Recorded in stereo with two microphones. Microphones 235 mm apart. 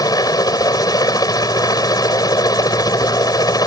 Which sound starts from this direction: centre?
A helicopter, at 0.0 s.